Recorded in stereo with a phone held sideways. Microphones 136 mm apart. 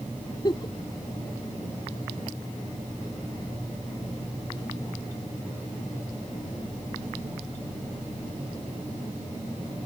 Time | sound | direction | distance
0.4 | a giggle | 35° left (ahead or behind) | ?